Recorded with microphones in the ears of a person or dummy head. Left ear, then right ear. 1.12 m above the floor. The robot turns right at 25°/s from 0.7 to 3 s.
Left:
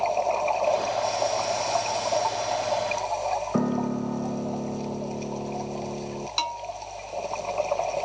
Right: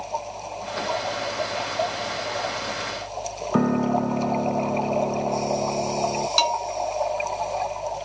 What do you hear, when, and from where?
3.5 s a piano: 20° right (ahead or behind)
6.4 s a bell: 15° right (ahead or behind)